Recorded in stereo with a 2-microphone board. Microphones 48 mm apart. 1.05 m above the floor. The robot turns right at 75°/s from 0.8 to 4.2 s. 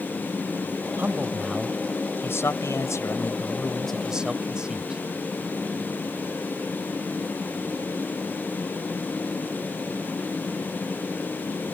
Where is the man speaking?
45° right; by 5.0 s 165° right.